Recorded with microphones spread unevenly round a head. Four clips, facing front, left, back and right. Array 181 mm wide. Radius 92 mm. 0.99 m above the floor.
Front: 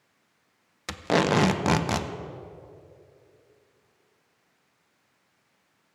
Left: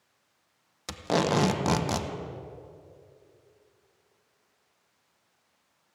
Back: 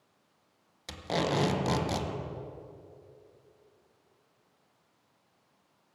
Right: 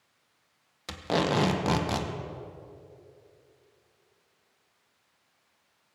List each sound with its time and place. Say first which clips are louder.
0.9 s tape being pulled: left 1 dB, front 7 dB; 15° left, 0.9 m